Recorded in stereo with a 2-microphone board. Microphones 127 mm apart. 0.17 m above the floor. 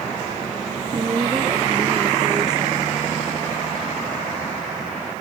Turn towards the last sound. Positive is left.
turn(degrees=-30)  # may be behind; listen again after turning